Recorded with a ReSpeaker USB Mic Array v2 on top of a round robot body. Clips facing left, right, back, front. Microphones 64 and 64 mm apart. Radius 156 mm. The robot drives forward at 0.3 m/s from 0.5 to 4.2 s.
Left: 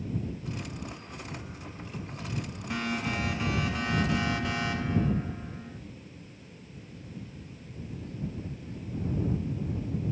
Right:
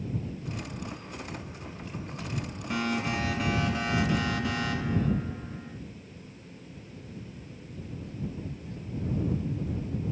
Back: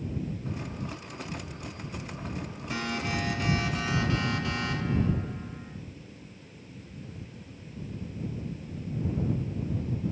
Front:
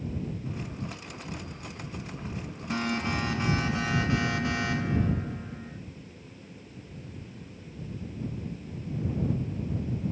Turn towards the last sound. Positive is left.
turn(degrees=5)